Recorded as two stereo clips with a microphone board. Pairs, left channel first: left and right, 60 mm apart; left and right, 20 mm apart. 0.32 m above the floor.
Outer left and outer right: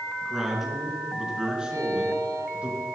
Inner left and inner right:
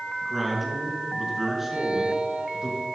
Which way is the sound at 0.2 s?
5° right (ahead or behind).